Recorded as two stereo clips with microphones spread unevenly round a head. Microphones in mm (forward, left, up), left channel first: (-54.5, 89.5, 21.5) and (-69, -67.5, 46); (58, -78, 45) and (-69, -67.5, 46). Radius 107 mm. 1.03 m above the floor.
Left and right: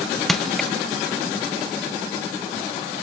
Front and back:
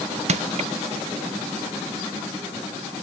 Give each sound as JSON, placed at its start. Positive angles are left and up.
{"t": 0.3, "sound": "crushing", "azimuth_deg": 170}